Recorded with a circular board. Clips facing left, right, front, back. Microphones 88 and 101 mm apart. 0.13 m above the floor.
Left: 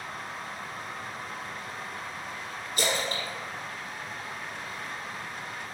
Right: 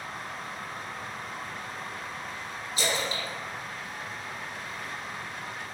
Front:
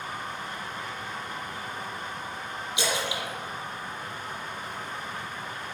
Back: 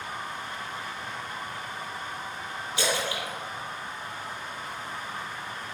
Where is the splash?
75° left, 1.6 m.